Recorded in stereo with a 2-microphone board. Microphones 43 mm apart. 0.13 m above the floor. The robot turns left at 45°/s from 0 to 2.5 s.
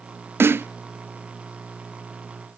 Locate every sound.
0.4 s a snare drum: 65° right (ahead or behind), 0.5 m